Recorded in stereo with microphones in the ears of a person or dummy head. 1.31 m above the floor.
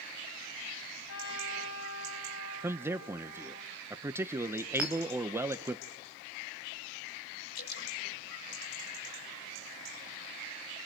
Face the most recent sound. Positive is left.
turn(degrees=50)  # may be behind; listen again after turning